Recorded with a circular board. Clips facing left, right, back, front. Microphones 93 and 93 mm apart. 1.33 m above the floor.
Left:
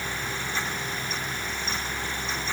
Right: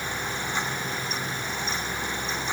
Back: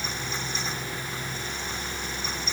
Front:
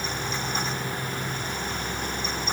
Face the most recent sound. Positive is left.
No sound to turn to.